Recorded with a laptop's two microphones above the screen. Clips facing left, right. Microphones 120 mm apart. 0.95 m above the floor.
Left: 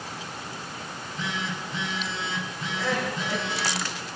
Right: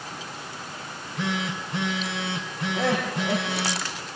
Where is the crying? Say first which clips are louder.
Right 3 dB; 60° right (ahead or behind), 7.5 m.